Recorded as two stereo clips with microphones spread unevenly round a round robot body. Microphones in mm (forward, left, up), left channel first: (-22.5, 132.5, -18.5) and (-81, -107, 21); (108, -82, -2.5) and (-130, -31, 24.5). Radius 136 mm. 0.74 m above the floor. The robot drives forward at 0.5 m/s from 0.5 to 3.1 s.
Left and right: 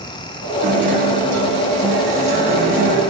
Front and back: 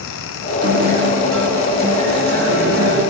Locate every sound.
0.6 s a guitar: 150° right, 2.5 m; by 3.0 s 160° right, 4 m